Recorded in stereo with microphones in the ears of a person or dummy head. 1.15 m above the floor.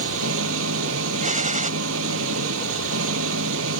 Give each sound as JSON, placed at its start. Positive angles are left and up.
{"t": 0.0, "sound": "an engine running", "side_deg": -75}
{"t": 1.2, "sound": "a gunshot", "side_deg": -40}